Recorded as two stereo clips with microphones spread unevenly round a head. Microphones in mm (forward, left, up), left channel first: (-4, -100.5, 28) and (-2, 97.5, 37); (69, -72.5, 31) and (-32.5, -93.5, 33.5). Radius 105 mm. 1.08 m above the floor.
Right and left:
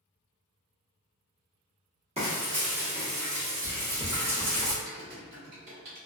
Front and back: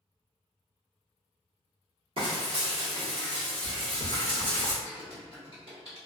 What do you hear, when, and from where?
2.2 s frying: 150° left, 1.2 m
4.8 s typing on a keyboard: 115° left, 1.7 m